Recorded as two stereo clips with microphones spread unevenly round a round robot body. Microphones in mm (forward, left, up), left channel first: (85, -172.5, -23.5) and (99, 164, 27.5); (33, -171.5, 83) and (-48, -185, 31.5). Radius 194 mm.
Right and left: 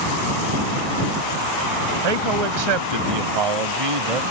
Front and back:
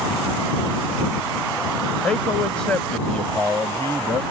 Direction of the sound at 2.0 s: 110° left.